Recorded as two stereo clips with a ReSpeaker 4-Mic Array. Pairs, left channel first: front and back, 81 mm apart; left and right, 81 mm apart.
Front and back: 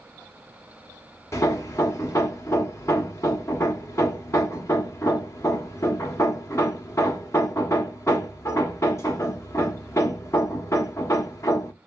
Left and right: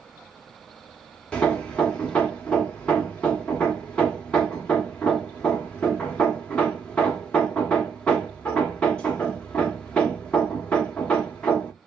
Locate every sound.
1.3 s hammering: 20° left, 0.8 m